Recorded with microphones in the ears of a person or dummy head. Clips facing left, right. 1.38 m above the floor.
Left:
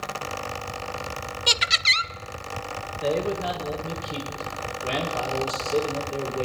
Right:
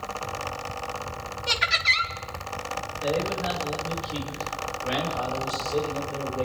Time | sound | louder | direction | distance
1.5 | laughter | right 1 dB | 45° left (ahead or behind) | 0.6 m
3.0 | a man speaking | left 2 dB | 70° left (ahead or behind) | 2 m